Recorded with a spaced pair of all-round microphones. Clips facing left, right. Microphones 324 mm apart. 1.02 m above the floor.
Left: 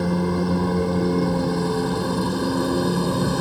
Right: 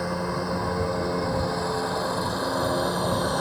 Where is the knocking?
No knocking in this recording.